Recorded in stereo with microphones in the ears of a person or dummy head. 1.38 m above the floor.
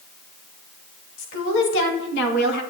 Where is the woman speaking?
70° left (ahead or behind), 3 m; by 2.6 s 60° left (ahead or behind), 1.7 m.